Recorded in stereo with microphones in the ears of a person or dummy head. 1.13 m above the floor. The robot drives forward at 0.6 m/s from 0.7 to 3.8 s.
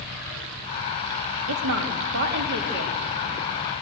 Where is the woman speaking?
70° right (ahead or behind), 1.4 m; by 3.0 s 45° right (ahead or behind), 1.9 m.